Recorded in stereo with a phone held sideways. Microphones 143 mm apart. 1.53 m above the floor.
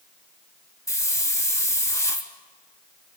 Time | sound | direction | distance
0.9 | a hiss | 20° left (ahead or behind) | 1.7 m